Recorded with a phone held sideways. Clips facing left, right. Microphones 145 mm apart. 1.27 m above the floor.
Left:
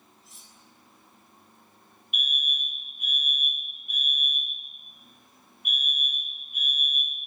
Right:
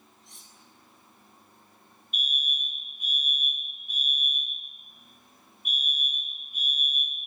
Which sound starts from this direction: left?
A fire alarm, at 2.1 s.